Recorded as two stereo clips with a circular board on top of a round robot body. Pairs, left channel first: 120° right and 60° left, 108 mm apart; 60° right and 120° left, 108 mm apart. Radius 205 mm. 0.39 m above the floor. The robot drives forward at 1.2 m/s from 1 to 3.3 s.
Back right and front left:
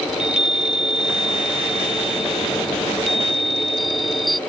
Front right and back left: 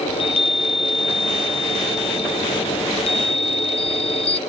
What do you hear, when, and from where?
0.1 s a chime: 25° right; by 4.4 s 30° right